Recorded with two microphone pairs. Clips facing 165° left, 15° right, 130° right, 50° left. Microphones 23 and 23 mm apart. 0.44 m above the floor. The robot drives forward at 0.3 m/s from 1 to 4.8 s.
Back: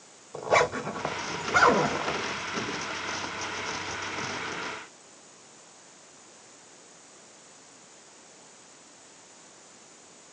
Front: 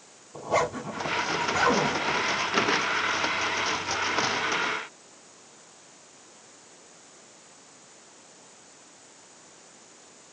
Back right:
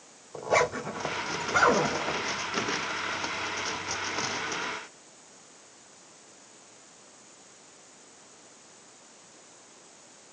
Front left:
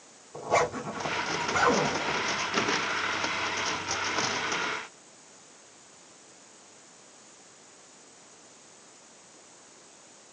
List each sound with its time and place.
0.3 s a zipper: 155° left, 1.3 m; by 2.2 s 160° left, 1.5 m